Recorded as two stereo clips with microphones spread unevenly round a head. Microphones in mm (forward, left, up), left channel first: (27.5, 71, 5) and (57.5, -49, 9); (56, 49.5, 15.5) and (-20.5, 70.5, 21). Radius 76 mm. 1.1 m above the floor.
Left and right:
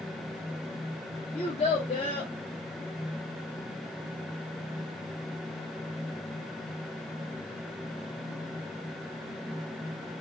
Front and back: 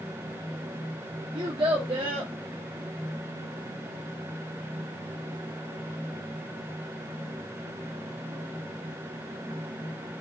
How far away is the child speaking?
About 0.9 m.